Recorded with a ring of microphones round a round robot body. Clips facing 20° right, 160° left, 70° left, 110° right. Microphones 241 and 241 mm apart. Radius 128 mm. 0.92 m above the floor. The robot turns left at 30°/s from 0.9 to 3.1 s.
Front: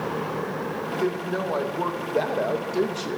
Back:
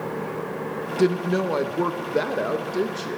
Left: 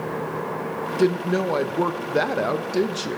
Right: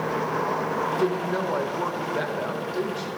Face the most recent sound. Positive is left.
turn(degrees=60)